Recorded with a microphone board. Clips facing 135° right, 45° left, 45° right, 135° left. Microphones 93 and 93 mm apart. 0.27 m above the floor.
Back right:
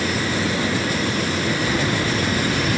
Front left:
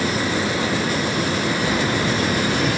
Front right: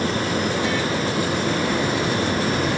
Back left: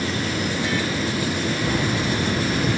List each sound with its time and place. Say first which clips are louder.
1.6 s keys jangling: front left 1 dB, front right 1 dB; 105° left, 2.5 m